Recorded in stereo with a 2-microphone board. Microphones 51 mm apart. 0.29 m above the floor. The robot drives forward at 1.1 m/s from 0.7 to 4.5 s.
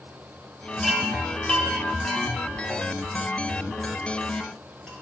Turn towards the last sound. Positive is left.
turn(degrees=5)  # may be behind; listen again after turning